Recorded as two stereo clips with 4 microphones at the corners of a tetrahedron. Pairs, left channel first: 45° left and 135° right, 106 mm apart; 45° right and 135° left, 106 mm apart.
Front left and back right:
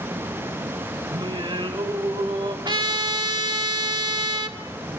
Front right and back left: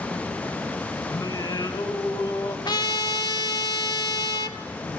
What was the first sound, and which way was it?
Singing, 95° right.